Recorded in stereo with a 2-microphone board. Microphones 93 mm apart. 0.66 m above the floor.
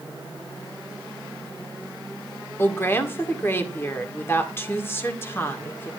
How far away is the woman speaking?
About 1.8 m.